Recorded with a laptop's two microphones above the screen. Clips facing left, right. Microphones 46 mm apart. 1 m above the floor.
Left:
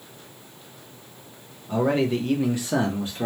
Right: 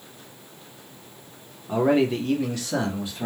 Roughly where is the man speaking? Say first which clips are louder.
Right 2 dB; right.